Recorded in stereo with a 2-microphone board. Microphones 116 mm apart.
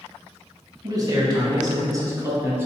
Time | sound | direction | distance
0.8 | a man speaking | 35° right (ahead or behind) | 1.5 m